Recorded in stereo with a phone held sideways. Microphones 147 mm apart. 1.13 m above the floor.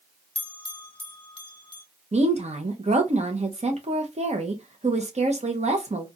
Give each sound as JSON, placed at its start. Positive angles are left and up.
{"t": 0.3, "sound": "a bell", "side_deg": 35, "distance_m": 0.9}
{"t": 2.1, "sound": "a woman speaking", "side_deg": -50, "distance_m": 0.8}